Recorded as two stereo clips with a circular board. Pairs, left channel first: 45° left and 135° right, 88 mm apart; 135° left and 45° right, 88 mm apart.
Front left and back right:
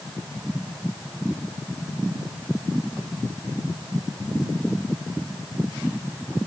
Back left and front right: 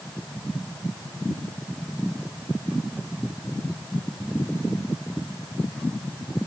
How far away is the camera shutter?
I don't hear a camera shutter.